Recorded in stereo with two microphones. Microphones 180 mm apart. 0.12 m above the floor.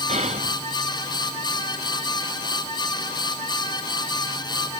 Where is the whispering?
40° right (ahead or behind), 1.3 m.